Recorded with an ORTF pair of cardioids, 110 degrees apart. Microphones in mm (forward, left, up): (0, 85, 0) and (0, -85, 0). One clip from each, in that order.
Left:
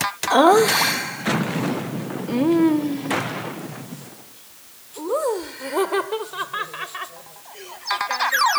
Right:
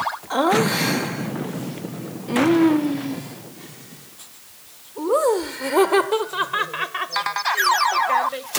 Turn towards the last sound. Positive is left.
turn(degrees=-35)